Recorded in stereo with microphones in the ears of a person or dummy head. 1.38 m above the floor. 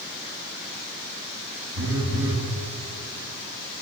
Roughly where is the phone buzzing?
Right.